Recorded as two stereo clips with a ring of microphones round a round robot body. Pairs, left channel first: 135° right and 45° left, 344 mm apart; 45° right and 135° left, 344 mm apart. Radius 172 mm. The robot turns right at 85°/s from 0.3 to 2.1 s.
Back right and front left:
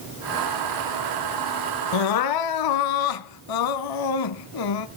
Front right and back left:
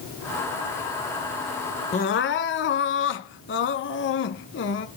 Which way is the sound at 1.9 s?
120° right.